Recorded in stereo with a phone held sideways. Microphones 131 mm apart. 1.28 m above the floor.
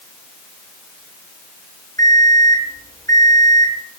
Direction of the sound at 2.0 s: 30° left (ahead or behind).